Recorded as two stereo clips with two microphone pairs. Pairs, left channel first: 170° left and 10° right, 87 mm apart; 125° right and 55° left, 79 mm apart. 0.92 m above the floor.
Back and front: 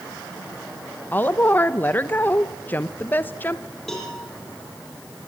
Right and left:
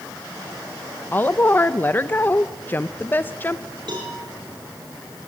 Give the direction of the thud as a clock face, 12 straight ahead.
No thud in this recording.